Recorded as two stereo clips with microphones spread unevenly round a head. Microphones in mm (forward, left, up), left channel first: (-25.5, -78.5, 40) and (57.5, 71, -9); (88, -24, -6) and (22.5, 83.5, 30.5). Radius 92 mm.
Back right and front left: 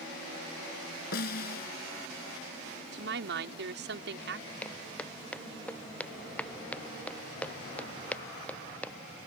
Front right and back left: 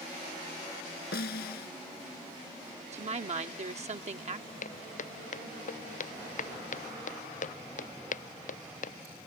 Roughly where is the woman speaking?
Left.